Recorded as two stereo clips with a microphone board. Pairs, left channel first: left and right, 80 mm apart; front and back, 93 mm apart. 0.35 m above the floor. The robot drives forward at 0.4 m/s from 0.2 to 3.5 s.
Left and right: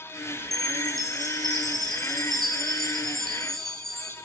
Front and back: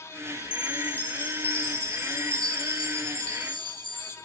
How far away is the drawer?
No drawer in this recording.